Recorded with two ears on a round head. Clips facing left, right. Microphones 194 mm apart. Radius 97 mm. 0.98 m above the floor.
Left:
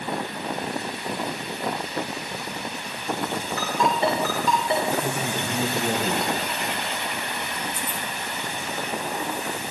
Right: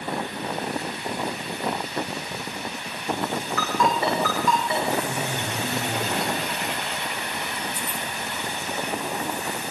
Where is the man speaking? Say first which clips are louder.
Left 1 dB; 45° left (ahead or behind), 5 m.